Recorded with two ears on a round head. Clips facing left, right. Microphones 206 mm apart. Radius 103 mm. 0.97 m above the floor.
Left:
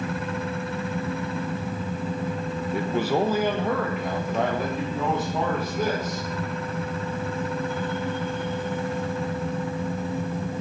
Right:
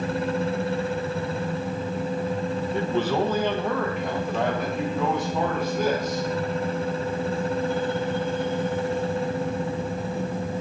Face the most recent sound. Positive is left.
turn(degrees=5)  # may be behind; listen again after turning